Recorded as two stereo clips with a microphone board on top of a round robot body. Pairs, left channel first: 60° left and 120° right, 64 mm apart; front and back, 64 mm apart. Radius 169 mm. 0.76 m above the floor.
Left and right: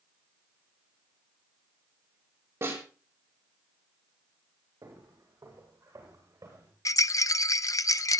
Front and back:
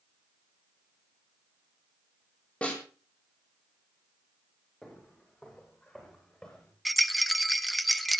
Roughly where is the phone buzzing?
I don't hear a phone buzzing.